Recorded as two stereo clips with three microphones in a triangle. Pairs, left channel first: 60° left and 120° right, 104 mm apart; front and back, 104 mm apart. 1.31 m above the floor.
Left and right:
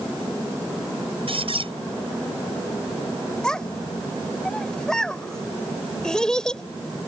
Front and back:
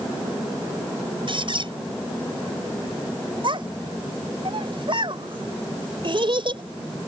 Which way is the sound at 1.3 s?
145° right.